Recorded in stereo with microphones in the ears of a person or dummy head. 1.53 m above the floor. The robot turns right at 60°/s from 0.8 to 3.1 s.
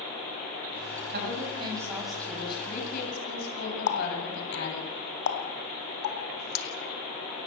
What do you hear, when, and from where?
1.1 s a woman speaking: 55° right, 8 m; by 4.9 s 65° left, 8 m
3.9 s a running tap: 55° left (ahead or behind), 2.5 m